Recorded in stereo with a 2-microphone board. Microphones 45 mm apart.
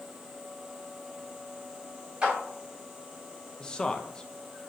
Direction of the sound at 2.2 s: 25° right (ahead or behind).